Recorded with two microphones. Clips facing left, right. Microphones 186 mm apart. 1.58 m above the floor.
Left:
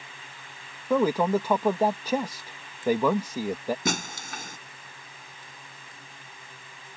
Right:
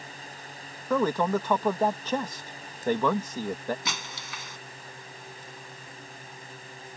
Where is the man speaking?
10° left (ahead or behind).